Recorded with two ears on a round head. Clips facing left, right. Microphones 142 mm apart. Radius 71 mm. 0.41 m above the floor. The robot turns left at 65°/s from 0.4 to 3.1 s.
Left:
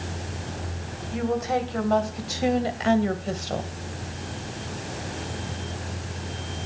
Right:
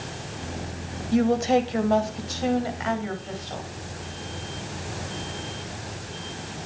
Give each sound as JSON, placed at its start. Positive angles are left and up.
{"t": 1.1, "sound": "a woman speaking", "azimuth_deg": -115, "distance_m": 2.0}